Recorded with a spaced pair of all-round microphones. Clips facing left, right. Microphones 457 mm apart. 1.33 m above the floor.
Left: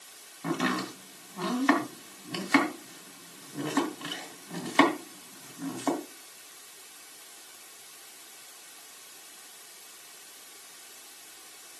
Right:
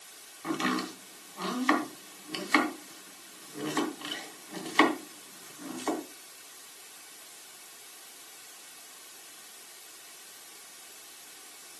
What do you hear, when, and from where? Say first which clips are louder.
0.4 s chopping: left 1 dB; 65° left (ahead or behind), 2.5 m